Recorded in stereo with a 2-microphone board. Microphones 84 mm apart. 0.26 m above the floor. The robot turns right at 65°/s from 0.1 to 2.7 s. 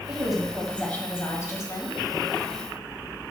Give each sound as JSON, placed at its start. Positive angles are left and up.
{"t": 0.1, "sound": "a woman speaking", "azimuth_deg": -20, "distance_m": 1.6}